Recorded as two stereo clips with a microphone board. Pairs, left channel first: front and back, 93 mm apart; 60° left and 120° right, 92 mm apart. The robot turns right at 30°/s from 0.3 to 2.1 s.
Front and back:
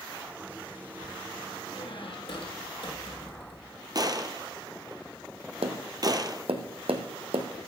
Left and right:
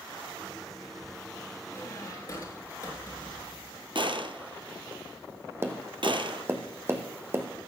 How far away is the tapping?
About 1.4 m.